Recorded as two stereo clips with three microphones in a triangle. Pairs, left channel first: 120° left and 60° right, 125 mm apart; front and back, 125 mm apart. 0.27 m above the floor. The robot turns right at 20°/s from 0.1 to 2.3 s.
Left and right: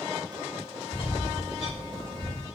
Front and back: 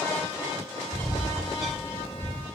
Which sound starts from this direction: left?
A bird, at 0.9 s.